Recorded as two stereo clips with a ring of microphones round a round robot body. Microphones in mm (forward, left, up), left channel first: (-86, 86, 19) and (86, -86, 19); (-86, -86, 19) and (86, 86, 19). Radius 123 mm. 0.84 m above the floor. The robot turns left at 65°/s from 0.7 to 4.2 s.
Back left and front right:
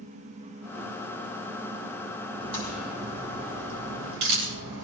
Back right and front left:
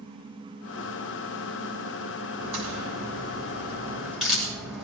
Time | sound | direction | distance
2.4 | a crack | 75° left | 6.5 m